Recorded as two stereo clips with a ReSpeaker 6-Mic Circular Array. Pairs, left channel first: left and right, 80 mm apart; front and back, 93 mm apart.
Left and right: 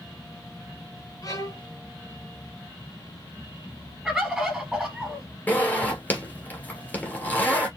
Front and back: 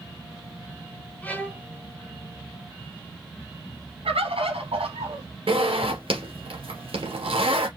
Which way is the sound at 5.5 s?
160° left.